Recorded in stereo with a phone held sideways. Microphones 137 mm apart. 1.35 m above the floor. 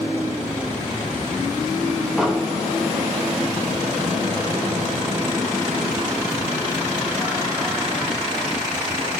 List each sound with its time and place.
2.2 s an explosion: centre (ahead or behind), 1.5 m